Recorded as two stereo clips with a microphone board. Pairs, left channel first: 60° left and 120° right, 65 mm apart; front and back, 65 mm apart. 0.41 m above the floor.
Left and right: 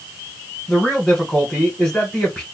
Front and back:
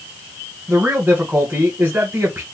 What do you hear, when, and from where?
0.7 s a man speaking: 140° left, 1.9 m